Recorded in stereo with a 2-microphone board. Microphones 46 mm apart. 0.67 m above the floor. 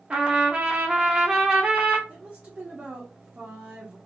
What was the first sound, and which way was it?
A trumpet, 25° right (ahead or behind).